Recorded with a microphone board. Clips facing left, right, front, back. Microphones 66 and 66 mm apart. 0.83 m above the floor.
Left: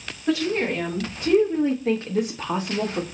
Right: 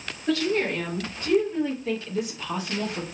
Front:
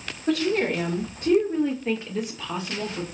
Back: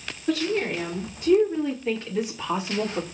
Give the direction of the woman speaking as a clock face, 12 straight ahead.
11 o'clock.